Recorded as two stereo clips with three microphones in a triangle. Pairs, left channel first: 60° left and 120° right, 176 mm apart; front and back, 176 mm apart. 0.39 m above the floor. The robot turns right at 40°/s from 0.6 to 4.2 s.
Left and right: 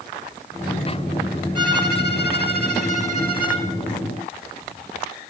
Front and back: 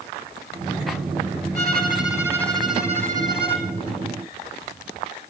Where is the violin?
45° left, 2.5 m; by 3.7 s 130° left, 2.5 m.